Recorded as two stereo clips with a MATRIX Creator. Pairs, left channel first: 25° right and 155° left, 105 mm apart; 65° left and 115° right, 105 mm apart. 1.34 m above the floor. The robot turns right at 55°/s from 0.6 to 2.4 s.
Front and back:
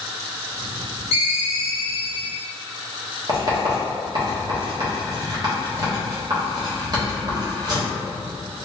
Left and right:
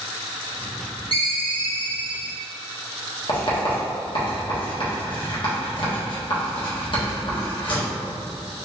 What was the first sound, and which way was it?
A ringtone, 105° left.